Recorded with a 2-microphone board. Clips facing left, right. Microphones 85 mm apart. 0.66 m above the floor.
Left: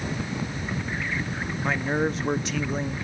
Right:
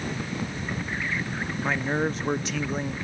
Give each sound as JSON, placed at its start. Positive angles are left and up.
{"t": 1.6, "sound": "a man speaking", "side_deg": 0, "distance_m": 0.6}